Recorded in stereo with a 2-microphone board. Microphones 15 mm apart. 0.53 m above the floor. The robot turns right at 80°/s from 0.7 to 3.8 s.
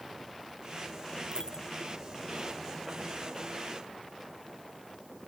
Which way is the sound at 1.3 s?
75° left (ahead or behind).